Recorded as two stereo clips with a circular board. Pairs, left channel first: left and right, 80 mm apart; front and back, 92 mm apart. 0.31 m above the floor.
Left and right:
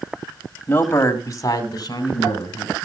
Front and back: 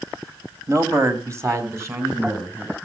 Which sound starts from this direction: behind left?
A man speaking, at 0.7 s.